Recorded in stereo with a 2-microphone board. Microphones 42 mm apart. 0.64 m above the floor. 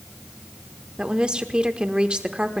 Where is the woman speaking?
25° right (ahead or behind), 1.3 m.